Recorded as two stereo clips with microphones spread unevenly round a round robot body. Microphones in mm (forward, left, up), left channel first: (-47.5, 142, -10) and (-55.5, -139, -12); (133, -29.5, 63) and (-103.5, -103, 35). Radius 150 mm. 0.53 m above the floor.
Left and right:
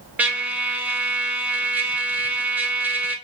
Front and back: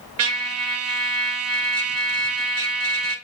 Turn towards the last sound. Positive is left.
turn(degrees=-175)